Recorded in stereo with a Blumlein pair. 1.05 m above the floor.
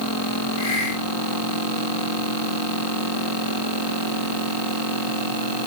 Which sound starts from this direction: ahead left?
A hiss, at 0.6 s.